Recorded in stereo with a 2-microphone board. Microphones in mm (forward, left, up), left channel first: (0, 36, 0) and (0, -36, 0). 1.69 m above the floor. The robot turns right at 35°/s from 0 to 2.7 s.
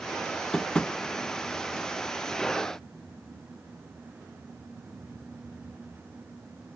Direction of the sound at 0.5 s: 5° left (ahead or behind).